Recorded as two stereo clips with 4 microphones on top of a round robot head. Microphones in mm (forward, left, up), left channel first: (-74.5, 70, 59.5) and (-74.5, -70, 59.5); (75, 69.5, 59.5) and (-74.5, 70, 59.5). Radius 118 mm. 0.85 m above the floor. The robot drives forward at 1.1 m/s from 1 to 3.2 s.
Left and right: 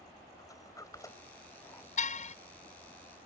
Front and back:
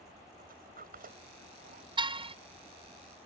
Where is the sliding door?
155° left; by 1.9 s 160° left.